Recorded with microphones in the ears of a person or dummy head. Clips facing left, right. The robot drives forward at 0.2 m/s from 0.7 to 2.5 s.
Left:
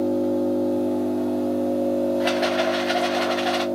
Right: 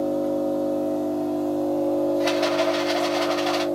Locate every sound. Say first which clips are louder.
0.0 s an engine running: left 2 dB; 20° left (ahead or behind), 1.1 m; by 3.7 s 15° left (ahead or behind), 1.4 m
2.2 s a rattle: even; 10° left (ahead or behind), 0.6 m